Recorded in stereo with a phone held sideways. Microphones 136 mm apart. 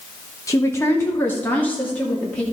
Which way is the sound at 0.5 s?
25° left (ahead or behind).